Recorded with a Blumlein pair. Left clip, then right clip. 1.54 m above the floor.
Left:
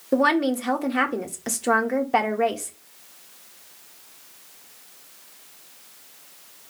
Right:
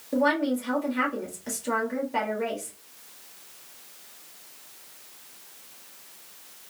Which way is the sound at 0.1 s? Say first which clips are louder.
Left 4 dB; 45° left.